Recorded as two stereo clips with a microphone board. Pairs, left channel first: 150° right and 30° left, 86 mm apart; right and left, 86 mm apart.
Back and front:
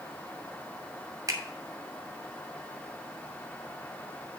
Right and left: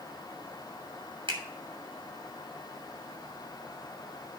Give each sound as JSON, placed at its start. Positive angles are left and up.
{"t": 1.3, "sound": "a finger snap", "azimuth_deg": 80, "distance_m": 2.0}